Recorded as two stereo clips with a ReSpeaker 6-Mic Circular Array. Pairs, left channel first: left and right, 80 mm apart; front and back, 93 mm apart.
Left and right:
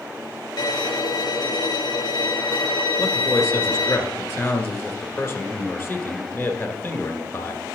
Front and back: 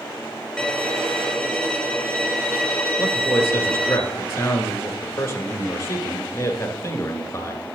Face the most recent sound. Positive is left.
turn(degrees=45)